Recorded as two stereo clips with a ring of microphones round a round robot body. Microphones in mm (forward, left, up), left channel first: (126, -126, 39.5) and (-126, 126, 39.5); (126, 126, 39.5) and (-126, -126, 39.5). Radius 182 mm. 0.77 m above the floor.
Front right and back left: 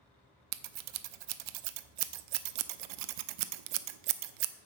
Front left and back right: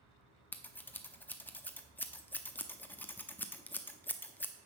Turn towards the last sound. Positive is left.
turn(degrees=130)